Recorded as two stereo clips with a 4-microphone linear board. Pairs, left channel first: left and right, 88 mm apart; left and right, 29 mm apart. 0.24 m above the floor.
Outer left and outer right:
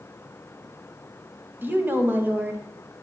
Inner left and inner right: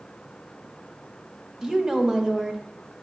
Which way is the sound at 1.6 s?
20° right (ahead or behind).